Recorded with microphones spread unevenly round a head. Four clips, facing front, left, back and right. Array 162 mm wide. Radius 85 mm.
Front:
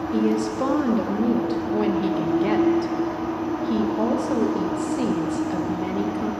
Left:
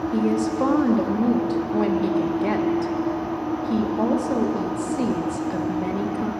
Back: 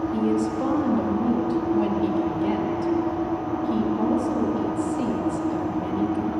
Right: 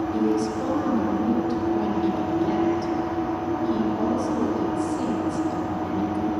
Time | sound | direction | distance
0.1 | a woman speaking | 45° left | 0.7 m